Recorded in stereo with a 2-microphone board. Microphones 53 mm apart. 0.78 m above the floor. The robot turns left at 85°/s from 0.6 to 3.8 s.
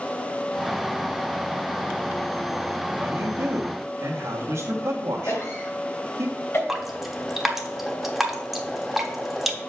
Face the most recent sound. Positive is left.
turn(degrees=-5)  # may be behind; listen again after turning